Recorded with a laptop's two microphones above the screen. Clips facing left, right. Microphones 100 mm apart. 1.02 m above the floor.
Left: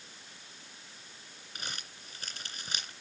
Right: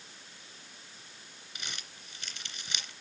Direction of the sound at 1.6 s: 45° left (ahead or behind).